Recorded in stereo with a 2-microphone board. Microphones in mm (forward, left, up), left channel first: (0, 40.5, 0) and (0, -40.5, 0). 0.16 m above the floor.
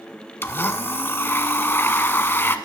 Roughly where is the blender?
Left.